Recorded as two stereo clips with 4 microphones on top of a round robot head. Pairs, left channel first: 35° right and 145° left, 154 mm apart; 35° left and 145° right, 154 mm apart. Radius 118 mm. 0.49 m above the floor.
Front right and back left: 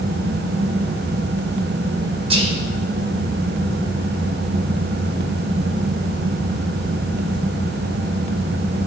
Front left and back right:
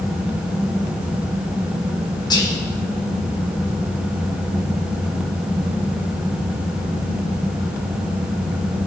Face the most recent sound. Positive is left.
turn(degrees=95)